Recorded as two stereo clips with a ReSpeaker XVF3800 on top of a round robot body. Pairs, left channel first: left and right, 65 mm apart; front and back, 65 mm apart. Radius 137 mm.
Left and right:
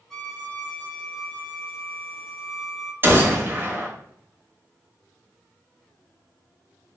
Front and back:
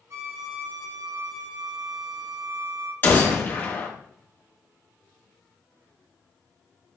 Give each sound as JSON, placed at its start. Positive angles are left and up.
{"t": 0.1, "sound": "a violin", "azimuth_deg": 170, "distance_m": 1.0}
{"t": 3.0, "sound": "a gunshot", "azimuth_deg": -50, "distance_m": 0.9}